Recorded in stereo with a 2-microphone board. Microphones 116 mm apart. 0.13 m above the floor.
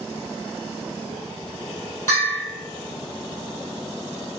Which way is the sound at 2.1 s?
20° left (ahead or behind).